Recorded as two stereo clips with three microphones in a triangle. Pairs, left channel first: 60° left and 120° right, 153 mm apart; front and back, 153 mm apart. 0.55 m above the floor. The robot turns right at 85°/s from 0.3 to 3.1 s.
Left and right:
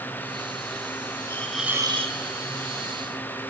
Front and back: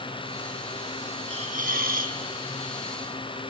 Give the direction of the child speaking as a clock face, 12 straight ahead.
I don't hear a child speaking.